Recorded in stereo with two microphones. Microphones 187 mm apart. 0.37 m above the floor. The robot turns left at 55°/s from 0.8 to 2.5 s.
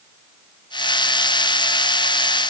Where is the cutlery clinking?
I don't hear cutlery clinking.